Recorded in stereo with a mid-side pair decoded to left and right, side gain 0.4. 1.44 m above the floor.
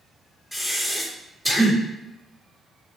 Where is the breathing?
Straight ahead, 1.6 m.